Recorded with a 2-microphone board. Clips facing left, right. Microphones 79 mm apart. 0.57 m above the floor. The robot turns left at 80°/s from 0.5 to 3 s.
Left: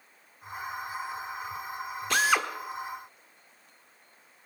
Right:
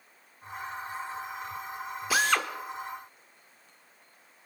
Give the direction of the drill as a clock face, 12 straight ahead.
6 o'clock.